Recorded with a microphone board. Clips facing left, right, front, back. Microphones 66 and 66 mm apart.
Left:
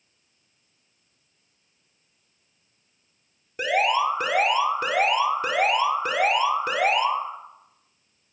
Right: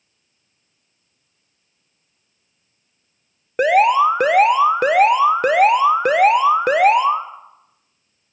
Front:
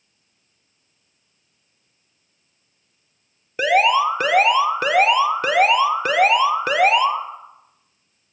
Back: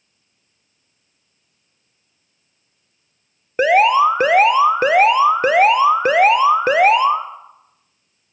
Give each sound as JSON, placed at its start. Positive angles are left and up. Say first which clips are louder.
{"t": 3.6, "sound": "an alarm", "louder": "right 9 dB, back 4 dB", "azimuth_deg": -120, "distance_m": 1.0}